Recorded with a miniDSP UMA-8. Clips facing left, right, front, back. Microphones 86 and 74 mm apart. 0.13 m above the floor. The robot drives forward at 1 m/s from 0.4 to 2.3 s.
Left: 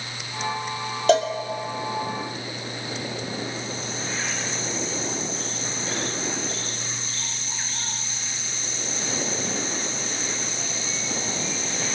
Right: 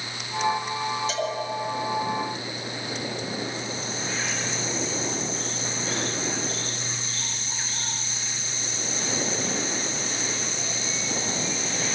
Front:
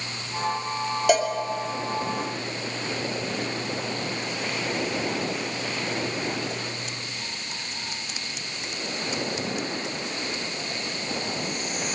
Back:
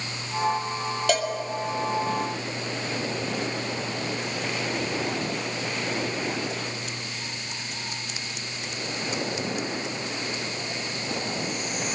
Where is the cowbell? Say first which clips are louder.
Left 9 dB, front 4 dB; 80° left, 2.5 m.